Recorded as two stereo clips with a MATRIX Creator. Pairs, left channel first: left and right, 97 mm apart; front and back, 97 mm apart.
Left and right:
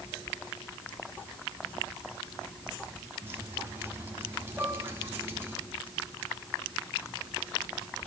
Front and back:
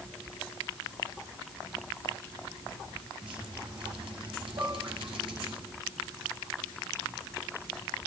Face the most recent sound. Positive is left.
turn(degrees=-170)